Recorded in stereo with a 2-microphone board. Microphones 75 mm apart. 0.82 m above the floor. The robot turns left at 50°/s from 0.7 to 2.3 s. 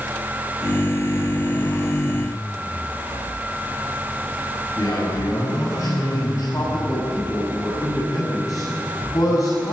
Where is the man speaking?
50° left (ahead or behind), 7 m.